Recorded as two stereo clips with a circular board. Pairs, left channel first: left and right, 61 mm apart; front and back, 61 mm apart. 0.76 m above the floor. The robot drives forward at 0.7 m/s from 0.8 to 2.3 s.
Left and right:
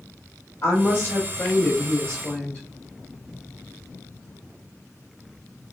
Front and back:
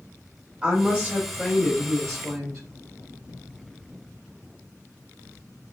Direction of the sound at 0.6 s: 115° left.